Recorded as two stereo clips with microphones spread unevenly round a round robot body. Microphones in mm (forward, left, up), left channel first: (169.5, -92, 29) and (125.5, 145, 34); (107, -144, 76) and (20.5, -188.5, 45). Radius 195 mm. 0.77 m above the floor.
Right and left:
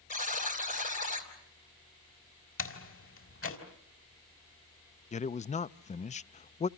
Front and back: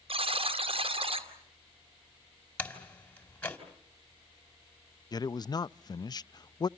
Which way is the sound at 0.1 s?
150° right.